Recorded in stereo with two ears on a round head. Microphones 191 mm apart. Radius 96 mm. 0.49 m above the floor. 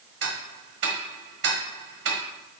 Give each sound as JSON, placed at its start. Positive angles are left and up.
{"t": 0.2, "sound": "ticking", "side_deg": -55, "distance_m": 1.3}